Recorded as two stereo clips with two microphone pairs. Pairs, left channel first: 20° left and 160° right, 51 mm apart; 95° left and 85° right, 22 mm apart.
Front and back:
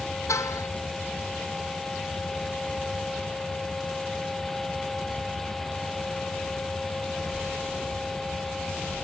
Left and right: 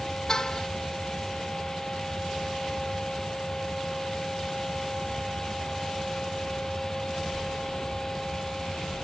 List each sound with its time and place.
0.3 s a car horn: 30° left